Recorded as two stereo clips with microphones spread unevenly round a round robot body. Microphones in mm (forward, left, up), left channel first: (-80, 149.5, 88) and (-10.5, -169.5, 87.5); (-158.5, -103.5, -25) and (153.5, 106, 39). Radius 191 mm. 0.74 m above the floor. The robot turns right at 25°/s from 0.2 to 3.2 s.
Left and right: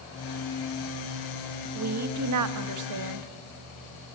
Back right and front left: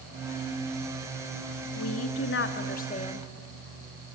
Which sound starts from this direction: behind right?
A woman speaking, at 1.8 s.